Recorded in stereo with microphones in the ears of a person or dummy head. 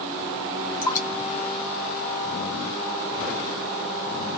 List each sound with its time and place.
0.8 s dripping: 25° left (ahead or behind), 1.4 m